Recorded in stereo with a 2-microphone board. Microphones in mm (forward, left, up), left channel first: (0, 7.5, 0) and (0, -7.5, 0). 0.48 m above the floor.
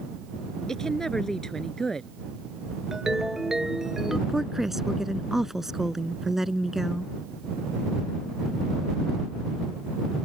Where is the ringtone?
40° right (ahead or behind).